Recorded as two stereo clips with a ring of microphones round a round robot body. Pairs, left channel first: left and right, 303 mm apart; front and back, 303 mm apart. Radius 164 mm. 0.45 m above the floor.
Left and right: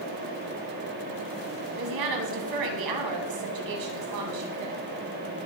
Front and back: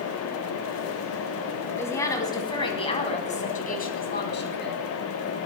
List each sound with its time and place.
1.8 s a woman speaking: 80° right, 3.5 m; by 4.8 s 50° right, 3.5 m